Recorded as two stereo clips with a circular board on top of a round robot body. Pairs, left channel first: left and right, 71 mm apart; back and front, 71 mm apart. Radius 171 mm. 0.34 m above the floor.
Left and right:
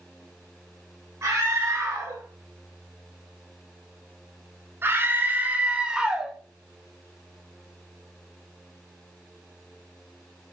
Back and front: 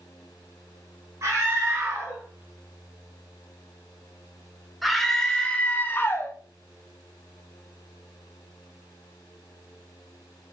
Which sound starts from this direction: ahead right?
A scream, at 1.2 s.